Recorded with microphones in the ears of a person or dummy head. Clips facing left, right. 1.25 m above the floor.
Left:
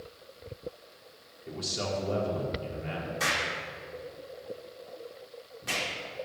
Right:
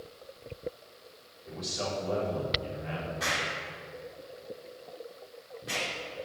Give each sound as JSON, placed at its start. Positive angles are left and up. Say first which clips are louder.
{"t": 1.5, "sound": "a man speaking", "louder": "left 1 dB", "side_deg": 35, "distance_m": 4.5}
{"t": 3.2, "sound": "an explosion", "louder": "left 1 dB", "side_deg": 65, "distance_m": 2.5}